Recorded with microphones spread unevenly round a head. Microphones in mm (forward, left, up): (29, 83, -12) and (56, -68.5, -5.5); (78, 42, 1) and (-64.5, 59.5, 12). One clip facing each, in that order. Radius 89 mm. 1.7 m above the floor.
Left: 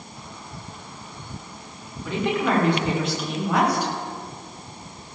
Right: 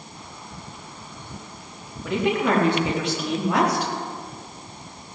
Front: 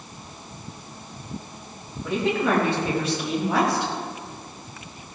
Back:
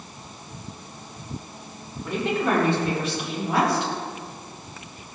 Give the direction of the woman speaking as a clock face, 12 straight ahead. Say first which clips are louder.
Right 2 dB, front 1 dB; 2 o'clock.